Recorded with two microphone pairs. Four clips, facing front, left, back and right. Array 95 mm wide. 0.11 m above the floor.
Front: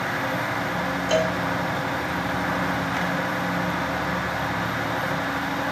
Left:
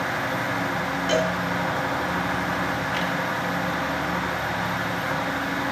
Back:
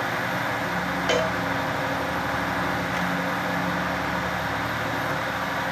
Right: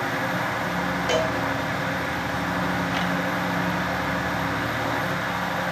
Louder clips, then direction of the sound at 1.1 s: Left 1 dB, front 2 dB; 155° right.